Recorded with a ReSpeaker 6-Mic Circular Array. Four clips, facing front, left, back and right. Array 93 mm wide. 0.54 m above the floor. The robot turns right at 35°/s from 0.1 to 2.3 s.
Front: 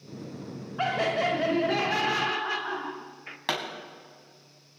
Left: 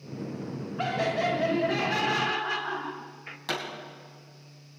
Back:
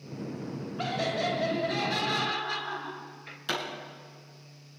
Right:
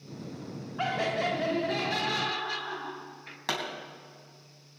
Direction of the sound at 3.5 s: 20° right.